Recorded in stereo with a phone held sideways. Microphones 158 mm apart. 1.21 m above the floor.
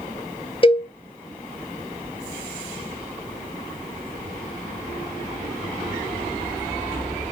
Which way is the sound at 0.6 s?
35° left (ahead or behind).